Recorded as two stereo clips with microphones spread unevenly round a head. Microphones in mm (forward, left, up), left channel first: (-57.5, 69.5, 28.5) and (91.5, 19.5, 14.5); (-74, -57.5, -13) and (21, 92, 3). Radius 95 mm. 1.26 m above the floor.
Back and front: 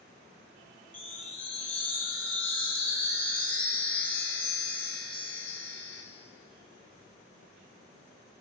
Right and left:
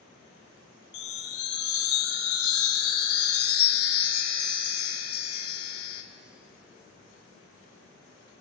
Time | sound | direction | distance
0.9 | a chime | 115° right | 1.2 m